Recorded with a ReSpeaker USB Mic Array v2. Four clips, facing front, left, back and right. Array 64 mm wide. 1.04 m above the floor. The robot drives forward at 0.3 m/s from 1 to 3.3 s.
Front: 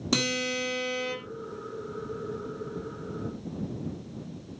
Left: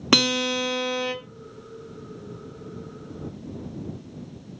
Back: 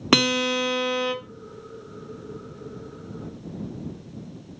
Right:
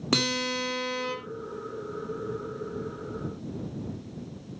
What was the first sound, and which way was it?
A guitar, 150° left.